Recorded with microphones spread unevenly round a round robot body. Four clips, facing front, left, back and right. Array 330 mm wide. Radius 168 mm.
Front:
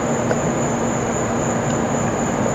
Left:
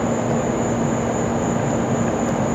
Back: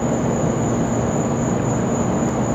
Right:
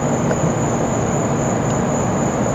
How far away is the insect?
About 5.5 m.